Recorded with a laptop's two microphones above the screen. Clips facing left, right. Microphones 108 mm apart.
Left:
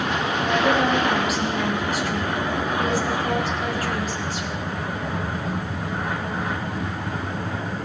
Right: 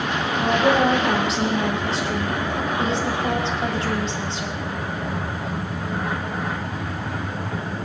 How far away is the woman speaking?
About 4.5 m.